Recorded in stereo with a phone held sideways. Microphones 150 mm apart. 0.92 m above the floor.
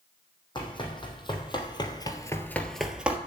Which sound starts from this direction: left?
Running footsteps, at 0.6 s.